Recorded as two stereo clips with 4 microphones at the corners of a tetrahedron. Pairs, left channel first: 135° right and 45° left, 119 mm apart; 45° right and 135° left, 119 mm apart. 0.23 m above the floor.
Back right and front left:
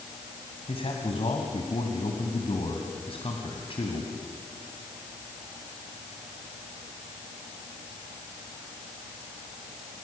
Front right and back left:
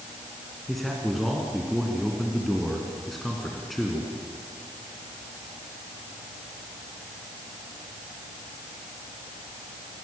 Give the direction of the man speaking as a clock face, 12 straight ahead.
4 o'clock.